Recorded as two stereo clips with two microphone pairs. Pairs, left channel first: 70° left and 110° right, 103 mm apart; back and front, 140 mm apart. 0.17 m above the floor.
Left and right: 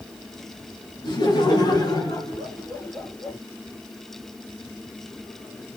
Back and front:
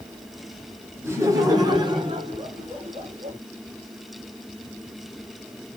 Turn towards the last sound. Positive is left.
turn(degrees=20)